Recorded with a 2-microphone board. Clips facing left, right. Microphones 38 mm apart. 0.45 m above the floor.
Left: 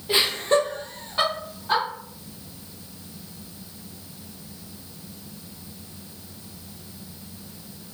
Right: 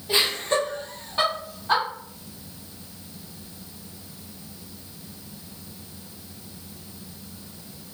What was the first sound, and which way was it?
Laughter, 25° left (ahead or behind).